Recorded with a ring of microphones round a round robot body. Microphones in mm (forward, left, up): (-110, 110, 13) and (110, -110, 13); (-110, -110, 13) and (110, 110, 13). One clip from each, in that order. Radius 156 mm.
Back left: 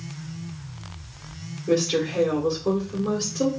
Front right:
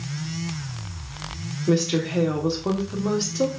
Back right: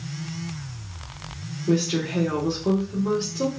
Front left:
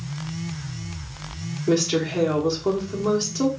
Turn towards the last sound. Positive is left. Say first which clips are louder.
# back left 1 dB, front left 3 dB
turn(degrees=-5)